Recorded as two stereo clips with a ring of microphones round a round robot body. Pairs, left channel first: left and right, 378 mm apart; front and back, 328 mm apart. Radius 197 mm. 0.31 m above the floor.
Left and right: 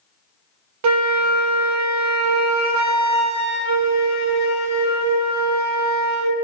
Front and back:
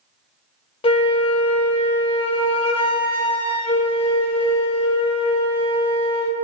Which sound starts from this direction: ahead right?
A flute, at 0.8 s.